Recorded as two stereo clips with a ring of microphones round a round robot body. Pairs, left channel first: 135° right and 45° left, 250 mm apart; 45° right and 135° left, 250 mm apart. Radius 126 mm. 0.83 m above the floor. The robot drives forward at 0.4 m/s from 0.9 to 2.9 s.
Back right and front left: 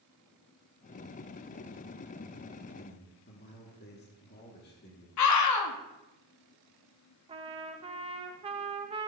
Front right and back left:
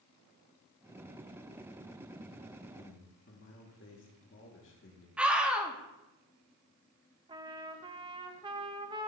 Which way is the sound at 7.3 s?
85° left.